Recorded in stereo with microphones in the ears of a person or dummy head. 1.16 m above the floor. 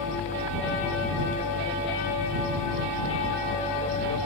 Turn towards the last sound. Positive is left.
turn(degrees=45)  # may be behind; listen again after turning